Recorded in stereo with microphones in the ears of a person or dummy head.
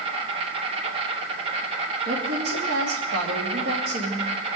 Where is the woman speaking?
60° right (ahead or behind), 2.5 m.